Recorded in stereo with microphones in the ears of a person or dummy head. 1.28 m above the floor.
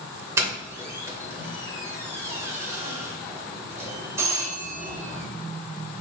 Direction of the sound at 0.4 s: 15° right (ahead or behind).